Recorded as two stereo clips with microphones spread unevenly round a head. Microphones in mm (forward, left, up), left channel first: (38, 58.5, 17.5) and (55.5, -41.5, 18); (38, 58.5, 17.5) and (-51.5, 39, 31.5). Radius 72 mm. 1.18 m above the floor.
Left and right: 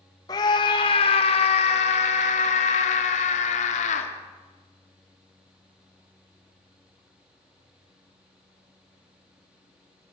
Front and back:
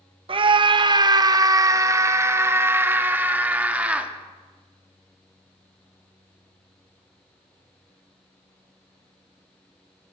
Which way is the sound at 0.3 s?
160° left.